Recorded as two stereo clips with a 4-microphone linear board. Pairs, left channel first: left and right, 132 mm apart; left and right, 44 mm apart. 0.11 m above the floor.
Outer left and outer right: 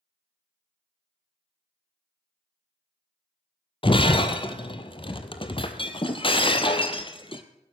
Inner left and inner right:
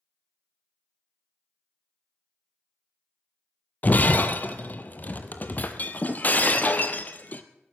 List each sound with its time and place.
3.8 s breaking glass: 40° left (ahead or behind), 0.9 m